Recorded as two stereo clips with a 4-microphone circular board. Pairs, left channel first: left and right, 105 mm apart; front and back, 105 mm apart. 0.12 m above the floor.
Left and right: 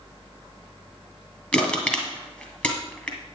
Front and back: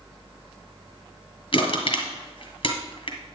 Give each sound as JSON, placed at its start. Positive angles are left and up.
{"t": 1.5, "sound": "crushing", "azimuth_deg": 15, "distance_m": 2.0}